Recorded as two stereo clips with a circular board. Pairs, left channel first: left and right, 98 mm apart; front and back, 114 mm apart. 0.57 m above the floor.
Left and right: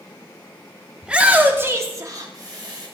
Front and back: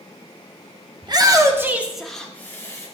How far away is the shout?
About 0.9 m.